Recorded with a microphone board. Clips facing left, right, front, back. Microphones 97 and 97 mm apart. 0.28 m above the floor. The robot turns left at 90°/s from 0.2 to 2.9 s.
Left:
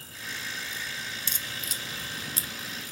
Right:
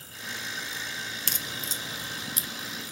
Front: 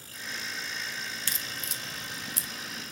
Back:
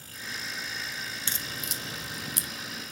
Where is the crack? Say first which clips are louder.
Right 2 dB, back 1 dB; 115° right, 0.5 m; by 2.5 s 135° left, 0.5 m.